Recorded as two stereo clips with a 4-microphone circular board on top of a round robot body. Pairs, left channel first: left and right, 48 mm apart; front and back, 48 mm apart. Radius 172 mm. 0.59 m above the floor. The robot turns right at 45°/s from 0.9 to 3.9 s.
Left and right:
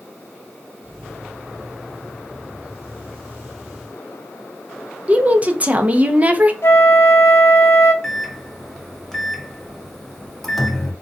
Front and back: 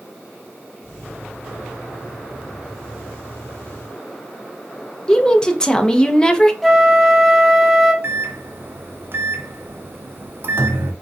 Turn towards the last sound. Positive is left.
turn(degrees=170)